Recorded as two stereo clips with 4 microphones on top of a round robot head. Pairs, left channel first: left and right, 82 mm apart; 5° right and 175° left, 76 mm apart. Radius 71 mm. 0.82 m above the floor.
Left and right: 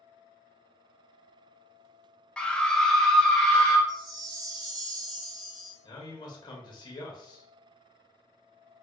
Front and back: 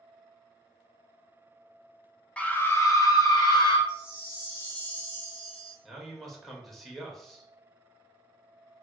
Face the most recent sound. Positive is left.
turn(degrees=85)